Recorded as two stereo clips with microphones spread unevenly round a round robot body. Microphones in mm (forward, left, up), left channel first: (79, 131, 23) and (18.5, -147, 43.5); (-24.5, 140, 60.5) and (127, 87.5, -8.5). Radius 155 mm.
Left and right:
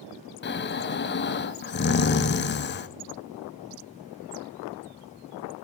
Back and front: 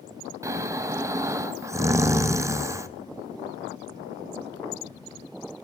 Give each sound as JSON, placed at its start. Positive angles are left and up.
{"t": 0.4, "sound": "snoring", "azimuth_deg": 35, "distance_m": 0.7}